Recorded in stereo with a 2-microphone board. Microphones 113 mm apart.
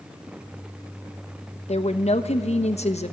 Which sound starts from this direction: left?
A woman speaking, at 1.7 s.